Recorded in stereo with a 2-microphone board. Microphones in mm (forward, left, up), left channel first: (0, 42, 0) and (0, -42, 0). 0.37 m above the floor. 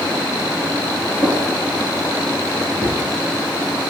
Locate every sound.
1.2 s a drawer: 35° left (ahead or behind), 4.5 m